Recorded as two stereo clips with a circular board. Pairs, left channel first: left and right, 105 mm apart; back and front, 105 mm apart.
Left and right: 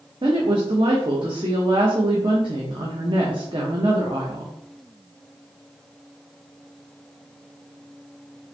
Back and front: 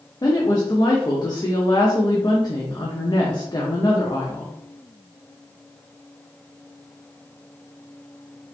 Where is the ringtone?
No ringtone in this recording.